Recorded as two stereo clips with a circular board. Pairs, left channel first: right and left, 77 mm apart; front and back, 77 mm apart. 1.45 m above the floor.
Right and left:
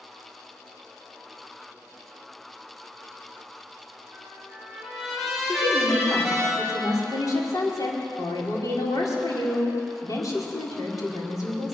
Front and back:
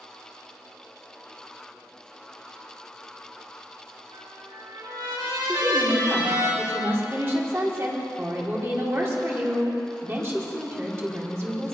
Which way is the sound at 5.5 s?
125° right.